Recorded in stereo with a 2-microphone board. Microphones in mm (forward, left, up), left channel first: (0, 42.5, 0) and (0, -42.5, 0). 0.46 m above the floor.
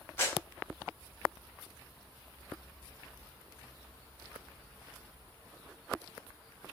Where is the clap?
30° left (ahead or behind), 1.8 m.